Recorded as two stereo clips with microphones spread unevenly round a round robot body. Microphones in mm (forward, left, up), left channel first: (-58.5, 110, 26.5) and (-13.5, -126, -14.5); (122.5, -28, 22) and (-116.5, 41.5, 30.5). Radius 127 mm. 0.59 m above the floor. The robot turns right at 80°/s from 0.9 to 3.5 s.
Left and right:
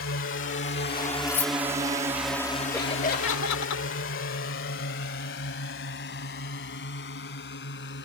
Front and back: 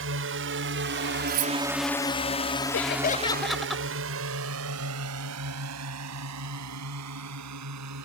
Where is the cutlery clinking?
155° left; by 1.5 s 175° left.